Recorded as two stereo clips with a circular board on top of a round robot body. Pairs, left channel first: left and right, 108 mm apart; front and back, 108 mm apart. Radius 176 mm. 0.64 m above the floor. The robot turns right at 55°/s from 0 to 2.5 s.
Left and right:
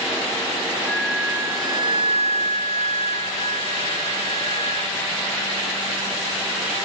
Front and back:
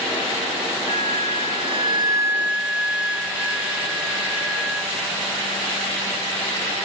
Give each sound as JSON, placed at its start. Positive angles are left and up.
{"t": 0.9, "sound": "a flute", "azimuth_deg": 170}